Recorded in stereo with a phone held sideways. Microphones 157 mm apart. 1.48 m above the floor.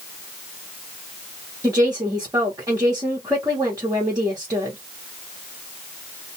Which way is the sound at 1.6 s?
20° right (ahead or behind).